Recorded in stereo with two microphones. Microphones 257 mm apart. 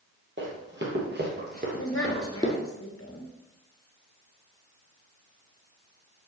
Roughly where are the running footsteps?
Right.